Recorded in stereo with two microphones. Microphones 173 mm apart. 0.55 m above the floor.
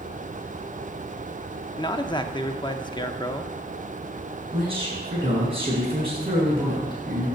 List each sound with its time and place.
1.8 s a man speaking: 25° left (ahead or behind), 0.7 m
4.5 s a man speaking: 35° right (ahead or behind), 6 m